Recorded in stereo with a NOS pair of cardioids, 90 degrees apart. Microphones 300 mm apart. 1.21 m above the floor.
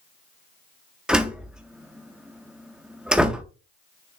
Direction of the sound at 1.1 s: 5° right.